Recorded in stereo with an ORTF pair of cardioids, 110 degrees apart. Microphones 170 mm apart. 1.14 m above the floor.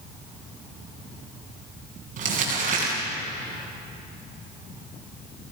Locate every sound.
2.2 s crumpling: 50° right, 8 m